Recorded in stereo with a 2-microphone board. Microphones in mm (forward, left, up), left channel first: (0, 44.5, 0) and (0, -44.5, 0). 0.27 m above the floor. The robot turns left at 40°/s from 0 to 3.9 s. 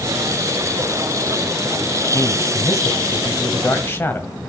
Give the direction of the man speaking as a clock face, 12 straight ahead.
8 o'clock.